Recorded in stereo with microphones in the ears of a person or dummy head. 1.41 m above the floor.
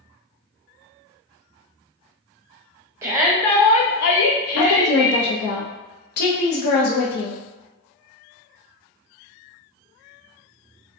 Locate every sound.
3.0 s a shout: 20° right (ahead or behind), 0.6 m; by 5.3 s 90° left, 1.2 m
4.6 s a woman speaking: 60° left (ahead or behind), 0.5 m